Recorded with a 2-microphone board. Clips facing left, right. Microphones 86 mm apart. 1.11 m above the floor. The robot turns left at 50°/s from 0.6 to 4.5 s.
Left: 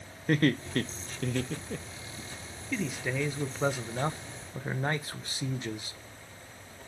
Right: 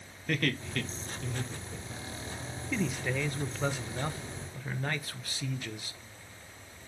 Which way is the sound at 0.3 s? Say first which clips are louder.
Left 6 dB; 30° left (ahead or behind).